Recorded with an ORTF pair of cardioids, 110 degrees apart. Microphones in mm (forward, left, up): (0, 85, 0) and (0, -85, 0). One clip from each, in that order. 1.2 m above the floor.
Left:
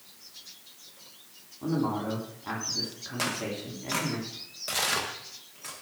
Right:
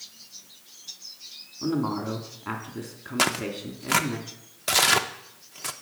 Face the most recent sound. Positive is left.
turn(degrees=-45)